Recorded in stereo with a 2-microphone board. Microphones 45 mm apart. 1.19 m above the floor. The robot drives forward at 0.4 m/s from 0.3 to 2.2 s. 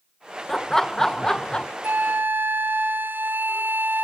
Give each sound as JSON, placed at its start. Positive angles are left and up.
{"t": 0.5, "sound": "laughter", "side_deg": 10, "distance_m": 0.8}
{"t": 1.8, "sound": "a flute", "side_deg": -50, "distance_m": 1.3}